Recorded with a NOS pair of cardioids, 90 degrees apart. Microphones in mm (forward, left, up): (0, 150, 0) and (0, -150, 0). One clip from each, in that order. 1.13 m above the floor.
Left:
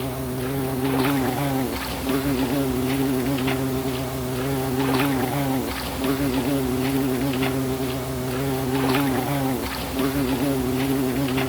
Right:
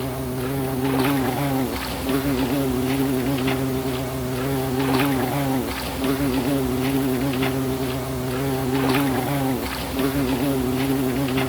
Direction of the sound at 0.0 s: 10° right.